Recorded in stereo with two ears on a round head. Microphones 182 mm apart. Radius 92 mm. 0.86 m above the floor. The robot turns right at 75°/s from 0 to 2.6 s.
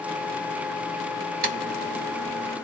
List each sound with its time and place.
1.4 s typing on a keyboard: 45° right (ahead or behind), 1.4 m; by 2.6 s 15° left (ahead or behind), 1.4 m